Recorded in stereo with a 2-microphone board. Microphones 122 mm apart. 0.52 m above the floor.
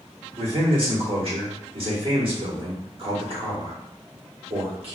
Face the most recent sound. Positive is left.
turn(degrees=-50)  # may be behind; listen again after turning